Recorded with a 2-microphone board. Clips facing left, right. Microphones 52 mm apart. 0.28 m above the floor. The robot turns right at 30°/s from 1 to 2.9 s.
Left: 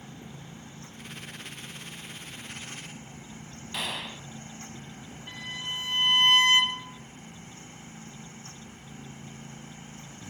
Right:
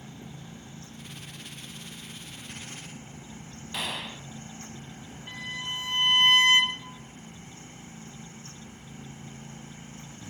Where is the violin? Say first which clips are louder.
Right 1 dB; 15° right (ahead or behind), 2.5 m.